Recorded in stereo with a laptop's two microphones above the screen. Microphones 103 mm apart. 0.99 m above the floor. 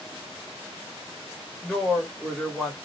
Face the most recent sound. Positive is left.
turn(degrees=5)  # may be behind; listen again after turning